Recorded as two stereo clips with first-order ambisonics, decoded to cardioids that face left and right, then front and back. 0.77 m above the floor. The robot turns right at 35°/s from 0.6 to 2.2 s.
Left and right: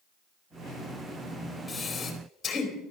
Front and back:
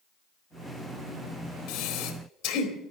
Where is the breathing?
10° left, 2.5 m; by 2.7 s 25° left, 2.5 m.